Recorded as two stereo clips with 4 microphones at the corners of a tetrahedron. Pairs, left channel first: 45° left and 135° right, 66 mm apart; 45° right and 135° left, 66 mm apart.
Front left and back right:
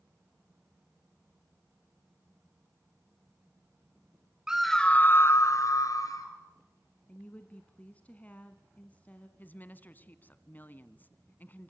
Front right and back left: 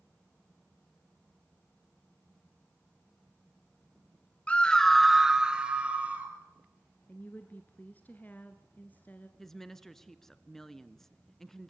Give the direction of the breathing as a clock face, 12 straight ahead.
No breathing in this recording.